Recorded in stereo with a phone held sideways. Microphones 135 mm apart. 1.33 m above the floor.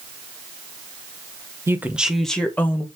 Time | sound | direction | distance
1.7 | a woman speaking | 20° right (ahead or behind) | 1.2 m